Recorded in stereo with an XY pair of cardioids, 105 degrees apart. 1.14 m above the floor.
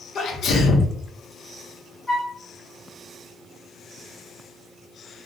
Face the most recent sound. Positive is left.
turn(degrees=15)